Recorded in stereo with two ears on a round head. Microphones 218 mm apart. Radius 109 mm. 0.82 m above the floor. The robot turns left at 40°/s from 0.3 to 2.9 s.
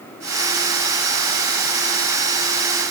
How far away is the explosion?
No explosion in this recording.